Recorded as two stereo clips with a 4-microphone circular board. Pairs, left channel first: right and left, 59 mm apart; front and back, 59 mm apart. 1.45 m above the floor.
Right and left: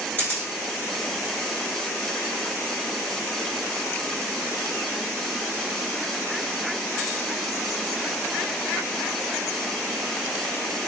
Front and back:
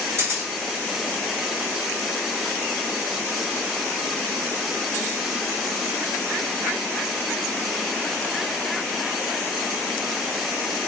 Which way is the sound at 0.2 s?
150° right.